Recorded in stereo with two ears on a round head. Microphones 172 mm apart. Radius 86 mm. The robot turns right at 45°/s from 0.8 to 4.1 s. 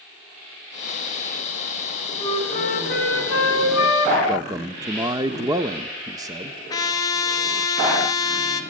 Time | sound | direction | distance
2.2 | a flute | 25° left | 1.8 m
4.3 | a man speaking | 20° right (ahead or behind) | 0.7 m
6.7 | a trumpet | 20° left (ahead or behind) | 1.6 m